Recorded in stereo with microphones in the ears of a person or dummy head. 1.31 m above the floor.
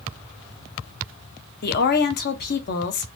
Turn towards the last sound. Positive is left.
turn(degrees=50)  # may be behind; listen again after turning